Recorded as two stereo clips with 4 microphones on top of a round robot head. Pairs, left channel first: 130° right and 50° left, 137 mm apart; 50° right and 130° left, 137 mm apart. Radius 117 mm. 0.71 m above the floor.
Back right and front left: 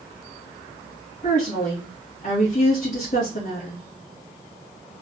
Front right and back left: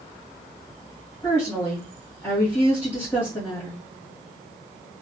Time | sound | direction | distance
1.2 | a woman speaking | 120° right | 1.7 m